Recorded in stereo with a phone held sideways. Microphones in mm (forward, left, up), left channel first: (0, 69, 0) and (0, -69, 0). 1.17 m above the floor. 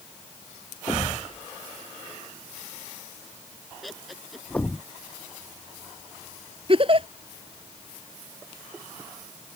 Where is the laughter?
Centre (ahead or behind).